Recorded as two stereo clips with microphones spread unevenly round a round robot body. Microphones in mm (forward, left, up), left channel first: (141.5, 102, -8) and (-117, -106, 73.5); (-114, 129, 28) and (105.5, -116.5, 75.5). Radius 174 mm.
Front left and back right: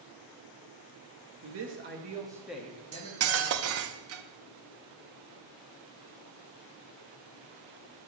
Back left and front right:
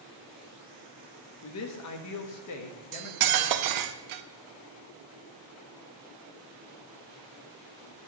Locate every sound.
1.4 s a man speaking: 170° left, 1.1 m; by 3.9 s 90° left, 1.7 m
2.9 s cutlery clinking: 85° right, 0.6 m